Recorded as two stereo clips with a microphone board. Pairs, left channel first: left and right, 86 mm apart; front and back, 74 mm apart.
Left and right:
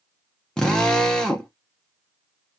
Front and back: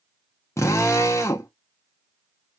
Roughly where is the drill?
Ahead.